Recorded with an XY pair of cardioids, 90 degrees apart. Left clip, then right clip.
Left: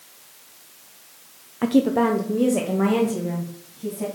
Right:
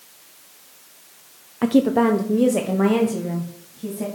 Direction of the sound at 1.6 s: 15° right.